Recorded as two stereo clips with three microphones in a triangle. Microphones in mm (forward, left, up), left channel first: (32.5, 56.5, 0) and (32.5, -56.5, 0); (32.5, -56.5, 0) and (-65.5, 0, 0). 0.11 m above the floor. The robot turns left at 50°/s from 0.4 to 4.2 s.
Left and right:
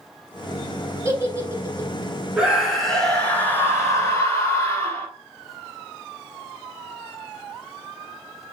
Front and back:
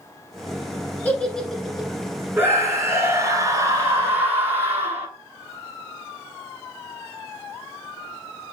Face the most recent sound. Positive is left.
turn(degrees=105)